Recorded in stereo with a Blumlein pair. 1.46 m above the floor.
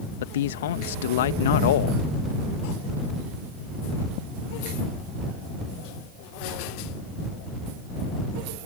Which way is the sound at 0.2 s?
60° left.